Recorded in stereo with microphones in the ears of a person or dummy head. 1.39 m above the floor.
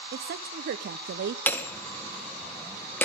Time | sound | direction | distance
0.1 | a woman speaking | 55° right (ahead or behind) | 0.7 m
1.5 | hammering | 15° left (ahead or behind) | 0.9 m